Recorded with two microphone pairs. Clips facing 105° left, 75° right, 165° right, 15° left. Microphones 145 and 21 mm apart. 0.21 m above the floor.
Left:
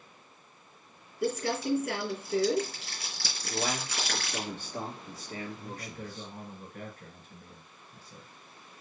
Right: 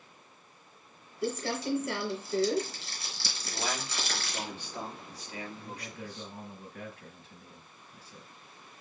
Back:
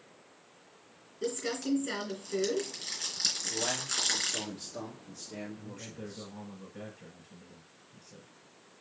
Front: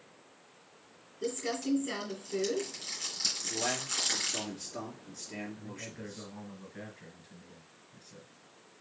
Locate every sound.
1.2 s crumpling: 120° left, 3 m
3.4 s a man speaking: 75° left, 3 m
5.6 s a man speaking: 65° left, 3.5 m